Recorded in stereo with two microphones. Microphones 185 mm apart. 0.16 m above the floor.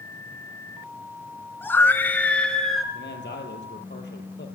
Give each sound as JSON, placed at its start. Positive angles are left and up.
{"t": 1.6, "sound": "a scream", "side_deg": 10, "distance_m": 1.5}
{"t": 2.9, "sound": "a man speaking", "side_deg": 70, "distance_m": 3.5}